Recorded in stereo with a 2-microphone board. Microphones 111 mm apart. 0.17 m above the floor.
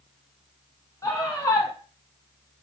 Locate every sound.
1.0 s a scream: 30° left (ahead or behind), 1.3 m